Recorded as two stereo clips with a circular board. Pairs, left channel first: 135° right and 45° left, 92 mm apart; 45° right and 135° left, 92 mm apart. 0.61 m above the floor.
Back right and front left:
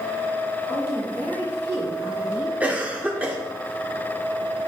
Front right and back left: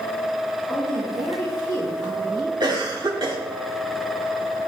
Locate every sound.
0.7 s a woman speaking: 80° left, 4.5 m; by 2.5 s 115° left, 3.5 m
2.6 s a cough: 115° left, 1.5 m